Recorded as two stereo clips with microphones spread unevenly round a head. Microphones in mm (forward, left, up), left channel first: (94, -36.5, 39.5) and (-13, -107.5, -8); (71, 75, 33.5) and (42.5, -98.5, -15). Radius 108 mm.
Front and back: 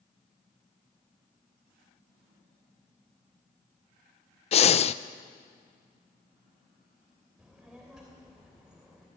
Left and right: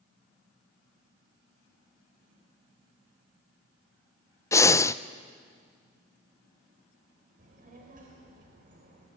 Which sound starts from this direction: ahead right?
A child speaking, at 7.4 s.